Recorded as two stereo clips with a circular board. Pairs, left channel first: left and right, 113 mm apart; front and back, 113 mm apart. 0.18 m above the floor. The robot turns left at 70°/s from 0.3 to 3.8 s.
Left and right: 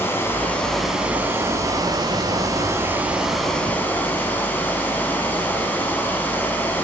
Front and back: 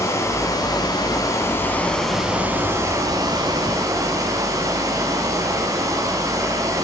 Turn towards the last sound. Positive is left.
turn(degrees=150)